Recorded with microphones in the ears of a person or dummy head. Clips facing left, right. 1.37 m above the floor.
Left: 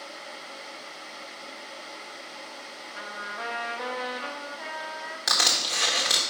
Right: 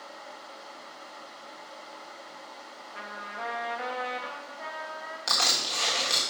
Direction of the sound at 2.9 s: 5° right (ahead or behind).